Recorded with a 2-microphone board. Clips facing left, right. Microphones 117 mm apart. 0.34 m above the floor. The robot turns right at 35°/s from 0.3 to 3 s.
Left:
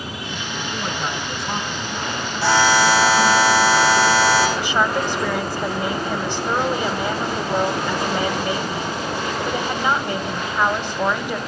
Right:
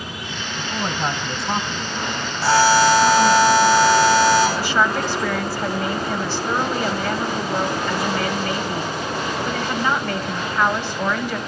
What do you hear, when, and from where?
0.6 s a man speaking: 45° right, 3.5 m; by 3.4 s 40° left, 3.5 m
2.4 s a buzzer: 75° left (ahead or behind), 9 m; by 4.5 s 85° left, 9 m
4.6 s a woman speaking: 15° left (ahead or behind), 2 m